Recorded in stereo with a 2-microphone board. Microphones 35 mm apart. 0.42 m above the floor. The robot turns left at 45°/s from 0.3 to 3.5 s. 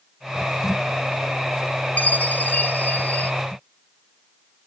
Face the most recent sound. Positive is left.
turn(degrees=50)